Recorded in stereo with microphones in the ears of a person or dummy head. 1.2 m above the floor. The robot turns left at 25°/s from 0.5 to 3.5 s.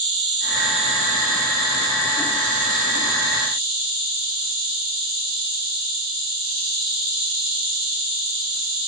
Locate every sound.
0.0 s an insect: 25° right, 1.4 m; by 8.9 s 100° right, 1.4 m